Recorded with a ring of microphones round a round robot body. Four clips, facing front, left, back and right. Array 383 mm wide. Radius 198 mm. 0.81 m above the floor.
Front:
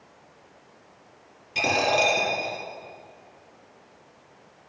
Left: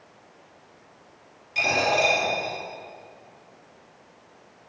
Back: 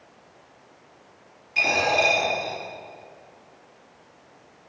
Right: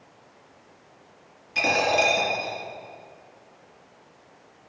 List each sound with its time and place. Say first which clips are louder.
1.6 s a dropped coin: right 1 dB, even; 25° right, 2 m